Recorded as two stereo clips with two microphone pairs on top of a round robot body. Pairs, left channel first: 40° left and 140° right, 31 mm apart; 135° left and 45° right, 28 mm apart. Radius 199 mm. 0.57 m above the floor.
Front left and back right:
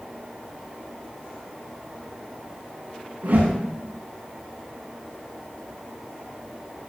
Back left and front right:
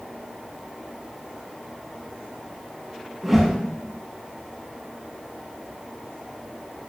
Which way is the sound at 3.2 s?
125° right.